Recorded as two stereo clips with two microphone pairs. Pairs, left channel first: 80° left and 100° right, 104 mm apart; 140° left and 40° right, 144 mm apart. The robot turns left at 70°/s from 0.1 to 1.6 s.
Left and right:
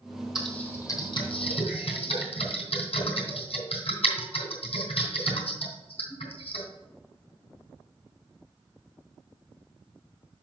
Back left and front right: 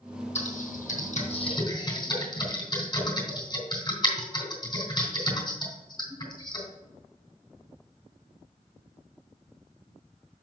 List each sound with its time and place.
0.3 s typing on a keyboard: 170° left, 3.5 m; by 6.6 s 80° left, 3.5 m